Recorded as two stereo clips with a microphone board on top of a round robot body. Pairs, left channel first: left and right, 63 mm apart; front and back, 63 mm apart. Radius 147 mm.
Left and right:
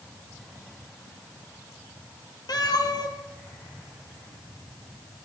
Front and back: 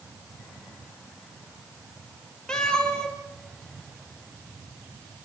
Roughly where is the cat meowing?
Left.